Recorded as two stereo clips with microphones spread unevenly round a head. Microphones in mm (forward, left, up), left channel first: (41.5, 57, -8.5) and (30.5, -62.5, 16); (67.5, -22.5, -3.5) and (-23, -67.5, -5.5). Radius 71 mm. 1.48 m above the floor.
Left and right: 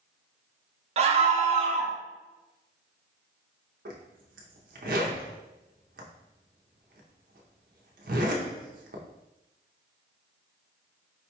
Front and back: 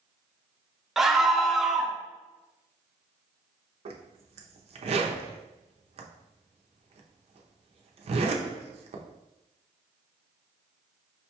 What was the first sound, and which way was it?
A scream, 65° right.